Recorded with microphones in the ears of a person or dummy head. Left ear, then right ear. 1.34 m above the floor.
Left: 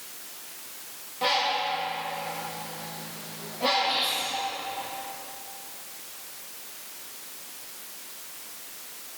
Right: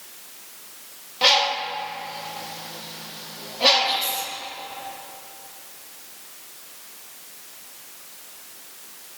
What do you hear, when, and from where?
1.2 s a bird: 55° right (ahead or behind), 1.0 m
3.8 s whispering: 85° right, 2.0 m